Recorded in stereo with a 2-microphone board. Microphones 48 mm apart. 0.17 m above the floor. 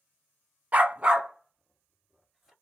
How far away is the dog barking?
About 0.5 m.